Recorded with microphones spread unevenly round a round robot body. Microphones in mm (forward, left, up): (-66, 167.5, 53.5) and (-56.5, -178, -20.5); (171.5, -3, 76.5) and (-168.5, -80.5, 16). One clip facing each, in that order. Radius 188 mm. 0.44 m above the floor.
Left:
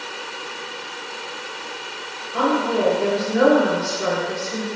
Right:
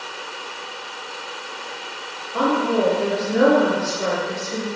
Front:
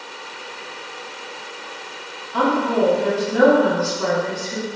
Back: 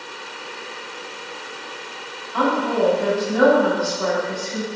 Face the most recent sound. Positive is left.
turn(degrees=-20)